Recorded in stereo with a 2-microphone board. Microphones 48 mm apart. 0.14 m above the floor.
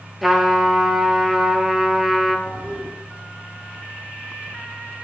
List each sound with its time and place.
0.2 s a trumpet: centre (ahead or behind), 1.4 m
2.5 s a toilet flushing: centre (ahead or behind), 5 m